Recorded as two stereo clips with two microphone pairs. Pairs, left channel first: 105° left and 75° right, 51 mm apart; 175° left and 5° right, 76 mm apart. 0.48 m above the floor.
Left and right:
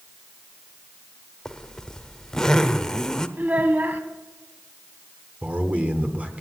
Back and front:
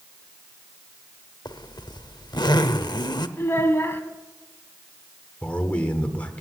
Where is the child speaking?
125° right, 1.7 m.